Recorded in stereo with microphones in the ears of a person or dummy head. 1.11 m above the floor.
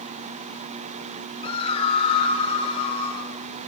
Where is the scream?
35° left (ahead or behind), 4 m.